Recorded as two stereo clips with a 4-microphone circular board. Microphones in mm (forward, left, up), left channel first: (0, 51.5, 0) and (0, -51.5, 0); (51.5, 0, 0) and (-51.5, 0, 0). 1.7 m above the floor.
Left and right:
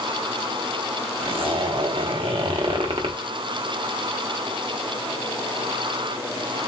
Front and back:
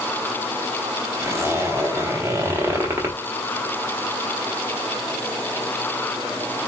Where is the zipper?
115° right, 0.9 m.